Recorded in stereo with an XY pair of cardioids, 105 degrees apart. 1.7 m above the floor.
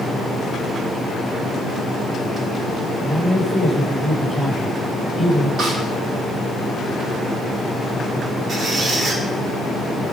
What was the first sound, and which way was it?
A man speaking, straight ahead.